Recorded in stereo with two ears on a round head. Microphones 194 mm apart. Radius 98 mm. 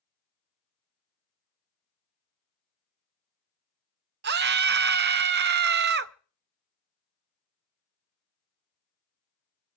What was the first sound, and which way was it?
A scream, 50° right (ahead or behind).